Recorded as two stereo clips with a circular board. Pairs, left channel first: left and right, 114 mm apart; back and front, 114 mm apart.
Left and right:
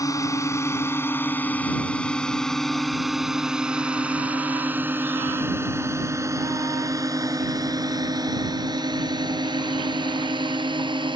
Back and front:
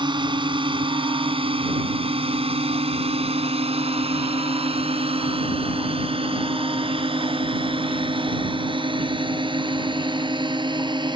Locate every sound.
0.0 s a drone: 35° left; by 11.2 s 45° right